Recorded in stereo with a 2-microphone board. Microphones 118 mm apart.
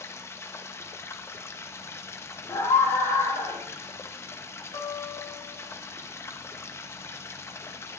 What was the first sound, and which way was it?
Running water, 25° left (ahead or behind).